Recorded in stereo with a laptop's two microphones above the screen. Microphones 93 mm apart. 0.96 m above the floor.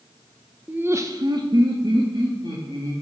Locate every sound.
0.7 s laughter: 10° right (ahead or behind), 0.5 m; by 2.9 s 50° right (ahead or behind), 2 m